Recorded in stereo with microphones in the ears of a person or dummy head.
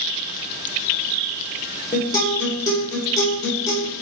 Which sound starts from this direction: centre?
A guitar, at 1.9 s.